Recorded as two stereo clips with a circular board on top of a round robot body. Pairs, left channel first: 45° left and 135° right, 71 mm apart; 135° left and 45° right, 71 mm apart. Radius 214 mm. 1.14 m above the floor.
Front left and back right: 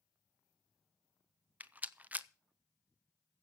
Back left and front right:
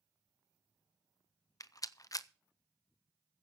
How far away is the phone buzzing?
No phone buzzing in this recording.